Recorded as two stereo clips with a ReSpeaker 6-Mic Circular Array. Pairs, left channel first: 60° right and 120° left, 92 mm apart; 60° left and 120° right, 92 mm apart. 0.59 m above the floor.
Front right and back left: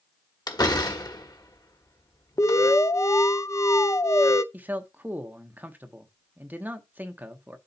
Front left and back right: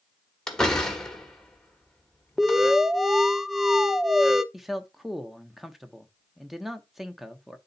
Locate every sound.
0.5 s a door slam: 20° right, 1.5 m
2.4 s an alarm: 30° right, 0.5 m
4.5 s a man speaking: 155° left, 0.9 m